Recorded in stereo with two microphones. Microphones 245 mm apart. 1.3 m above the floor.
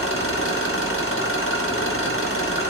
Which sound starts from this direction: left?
An engine running, at 0.0 s.